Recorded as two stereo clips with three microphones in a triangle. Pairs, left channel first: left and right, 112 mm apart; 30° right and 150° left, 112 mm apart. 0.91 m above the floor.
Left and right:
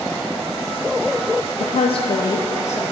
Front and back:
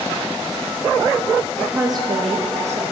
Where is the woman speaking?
60° left, 0.6 m; by 2.8 s 155° left, 1.1 m.